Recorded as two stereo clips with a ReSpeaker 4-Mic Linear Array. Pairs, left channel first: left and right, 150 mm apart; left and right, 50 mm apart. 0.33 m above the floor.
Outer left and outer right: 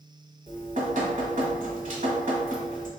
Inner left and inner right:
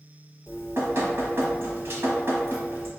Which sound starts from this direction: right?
Dripping, at 0.5 s.